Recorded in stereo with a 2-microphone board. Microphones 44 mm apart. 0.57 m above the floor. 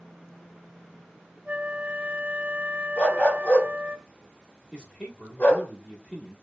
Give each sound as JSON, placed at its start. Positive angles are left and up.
{"t": 1.4, "sound": "a flute", "side_deg": -30, "distance_m": 1.1}
{"t": 3.0, "sound": "a dog barking", "side_deg": 35, "distance_m": 1.1}
{"t": 4.7, "sound": "a man speaking", "side_deg": 15, "distance_m": 1.1}